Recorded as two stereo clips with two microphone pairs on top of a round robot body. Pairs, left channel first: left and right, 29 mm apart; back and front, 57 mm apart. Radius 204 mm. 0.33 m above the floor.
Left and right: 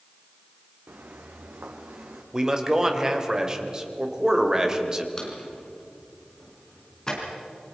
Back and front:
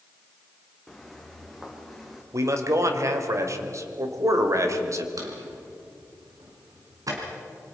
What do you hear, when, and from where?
0.9 s footsteps: 95° right, 2 m; by 2.2 s 90° right, 3 m
2.3 s a man speaking: 25° right, 2.5 m
5.2 s a drawer: 20° left, 4 m